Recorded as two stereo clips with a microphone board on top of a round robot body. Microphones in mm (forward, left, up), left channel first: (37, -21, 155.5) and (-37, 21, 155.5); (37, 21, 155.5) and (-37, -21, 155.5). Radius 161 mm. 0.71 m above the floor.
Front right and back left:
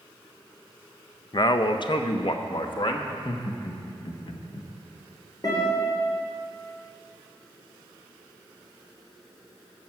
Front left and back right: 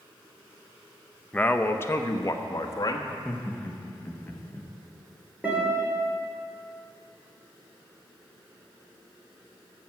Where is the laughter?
40° right, 1.3 m.